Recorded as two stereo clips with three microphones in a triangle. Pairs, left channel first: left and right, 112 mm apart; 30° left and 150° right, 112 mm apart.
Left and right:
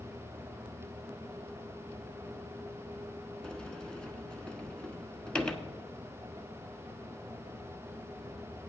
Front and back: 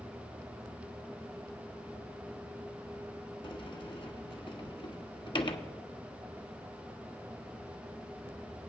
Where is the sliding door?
10° left, 1.1 m.